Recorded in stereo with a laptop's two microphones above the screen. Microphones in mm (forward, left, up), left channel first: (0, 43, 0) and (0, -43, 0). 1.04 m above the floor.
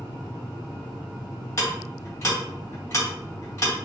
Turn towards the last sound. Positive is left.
turn(degrees=35)  # may be behind; listen again after turning